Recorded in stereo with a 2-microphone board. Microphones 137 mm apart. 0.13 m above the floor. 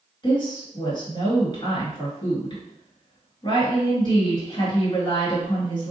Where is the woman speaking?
35° left (ahead or behind), 2.0 m.